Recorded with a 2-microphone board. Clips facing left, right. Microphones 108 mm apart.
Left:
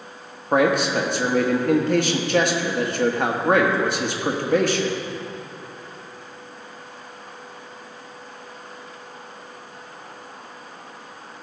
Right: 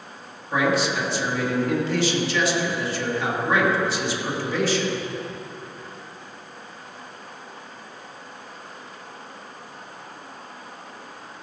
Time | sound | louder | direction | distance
0.5 | a man speaking | left 4 dB | 55° left (ahead or behind) | 1.2 m